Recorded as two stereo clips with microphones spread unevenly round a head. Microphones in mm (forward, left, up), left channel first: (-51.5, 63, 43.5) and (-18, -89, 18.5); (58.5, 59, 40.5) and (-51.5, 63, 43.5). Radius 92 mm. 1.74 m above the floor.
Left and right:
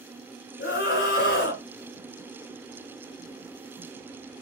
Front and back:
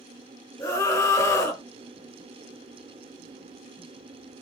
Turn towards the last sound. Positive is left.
turn(degrees=60)